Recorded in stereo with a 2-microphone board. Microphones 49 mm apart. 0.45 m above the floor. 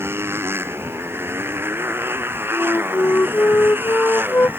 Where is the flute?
60° left (ahead or behind).